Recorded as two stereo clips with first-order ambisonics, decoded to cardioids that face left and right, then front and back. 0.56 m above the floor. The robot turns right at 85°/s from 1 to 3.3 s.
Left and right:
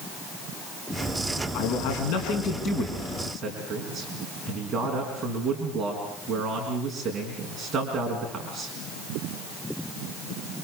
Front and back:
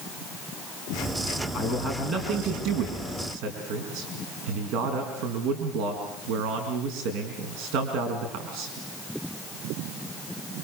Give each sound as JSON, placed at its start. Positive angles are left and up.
{"t": 1.5, "sound": "a man speaking", "azimuth_deg": 50, "distance_m": 5.0}